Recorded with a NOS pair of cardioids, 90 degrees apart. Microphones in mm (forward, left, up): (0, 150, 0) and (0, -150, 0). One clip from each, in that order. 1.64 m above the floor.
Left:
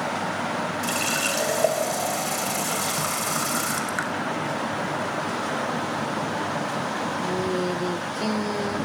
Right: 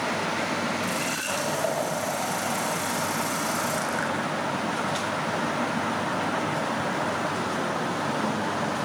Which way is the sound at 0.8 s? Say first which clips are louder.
Left 3 dB; 65° left.